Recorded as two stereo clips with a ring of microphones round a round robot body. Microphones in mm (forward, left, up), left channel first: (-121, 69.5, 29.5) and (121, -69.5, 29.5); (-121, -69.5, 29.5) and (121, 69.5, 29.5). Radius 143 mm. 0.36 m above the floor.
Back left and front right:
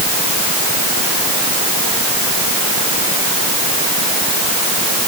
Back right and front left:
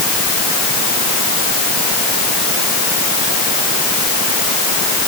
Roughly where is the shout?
No shout in this recording.